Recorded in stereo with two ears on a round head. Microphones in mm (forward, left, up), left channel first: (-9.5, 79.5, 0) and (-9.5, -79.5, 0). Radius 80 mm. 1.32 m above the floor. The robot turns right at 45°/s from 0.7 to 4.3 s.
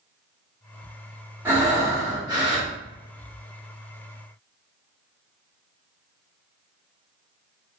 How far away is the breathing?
About 1.0 m.